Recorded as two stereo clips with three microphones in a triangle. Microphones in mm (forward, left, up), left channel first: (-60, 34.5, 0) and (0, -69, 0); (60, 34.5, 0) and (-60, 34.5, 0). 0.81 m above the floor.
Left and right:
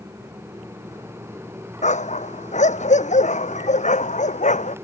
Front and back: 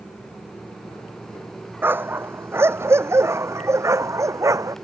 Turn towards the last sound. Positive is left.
turn(degrees=115)